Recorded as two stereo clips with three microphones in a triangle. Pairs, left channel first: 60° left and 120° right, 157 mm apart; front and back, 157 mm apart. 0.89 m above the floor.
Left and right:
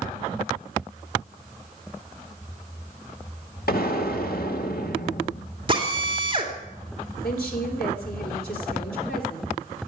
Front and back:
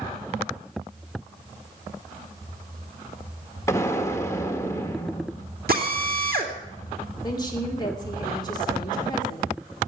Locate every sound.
3.7 s an explosion: 75° left, 1.5 m
5.7 s a drill: 175° right, 2.5 m
7.2 s a woman speaking: 65° left, 3 m